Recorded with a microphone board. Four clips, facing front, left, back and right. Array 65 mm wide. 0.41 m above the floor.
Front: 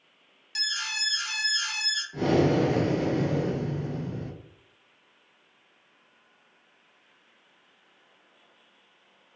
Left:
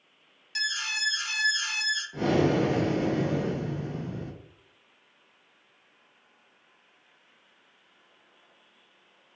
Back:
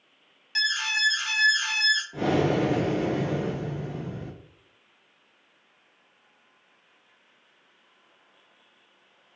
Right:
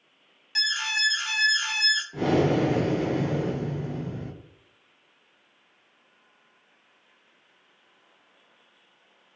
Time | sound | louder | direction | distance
0.6 | an alarm | right 4 dB, back 7 dB | 145° right | 0.6 m
2.1 | breathing | right 1 dB, front 4 dB | 160° right | 1.1 m